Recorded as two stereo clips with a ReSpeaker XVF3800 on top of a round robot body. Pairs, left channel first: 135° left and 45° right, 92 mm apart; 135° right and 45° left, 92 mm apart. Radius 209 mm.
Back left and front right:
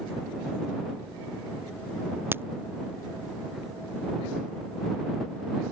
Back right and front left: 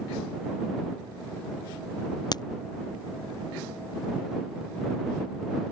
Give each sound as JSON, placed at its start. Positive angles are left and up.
{"t": 2.3, "sound": "a crack", "azimuth_deg": -110}